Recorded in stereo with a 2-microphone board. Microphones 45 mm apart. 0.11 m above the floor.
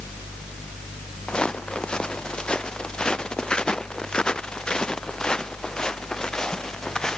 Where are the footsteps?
20° left (ahead or behind); by 7.2 s 15° left (ahead or behind).